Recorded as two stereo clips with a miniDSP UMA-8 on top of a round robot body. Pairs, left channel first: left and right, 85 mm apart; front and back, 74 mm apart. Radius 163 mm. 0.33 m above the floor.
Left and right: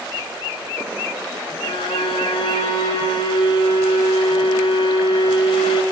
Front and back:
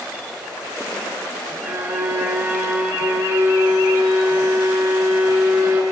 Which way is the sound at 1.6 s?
115° left.